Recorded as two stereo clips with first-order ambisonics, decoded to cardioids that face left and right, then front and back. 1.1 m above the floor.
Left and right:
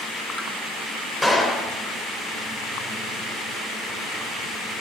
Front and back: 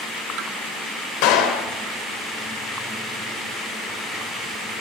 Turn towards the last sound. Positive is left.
turn(degrees=0)